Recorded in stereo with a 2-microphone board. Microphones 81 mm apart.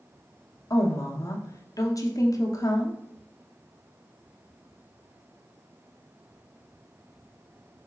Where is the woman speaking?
45° left (ahead or behind), 0.8 m.